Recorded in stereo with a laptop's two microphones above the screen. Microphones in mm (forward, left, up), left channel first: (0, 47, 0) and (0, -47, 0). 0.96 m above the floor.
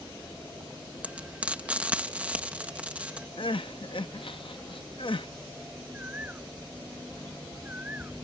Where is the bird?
15° right (ahead or behind).